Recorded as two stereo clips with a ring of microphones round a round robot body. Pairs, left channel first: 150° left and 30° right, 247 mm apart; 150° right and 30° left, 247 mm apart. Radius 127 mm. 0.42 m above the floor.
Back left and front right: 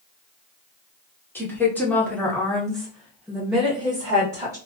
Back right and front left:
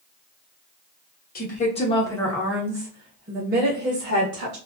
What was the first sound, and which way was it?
A woman speaking, 135° right.